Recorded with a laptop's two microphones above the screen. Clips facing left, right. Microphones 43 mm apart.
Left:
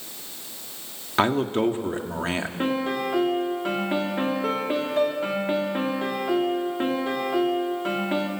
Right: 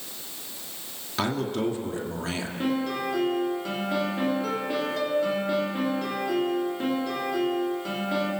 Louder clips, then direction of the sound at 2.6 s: Left 1 dB; 35° left (ahead or behind).